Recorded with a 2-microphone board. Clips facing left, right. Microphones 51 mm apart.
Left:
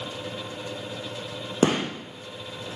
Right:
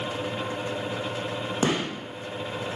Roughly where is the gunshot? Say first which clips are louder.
Left 4 dB; left.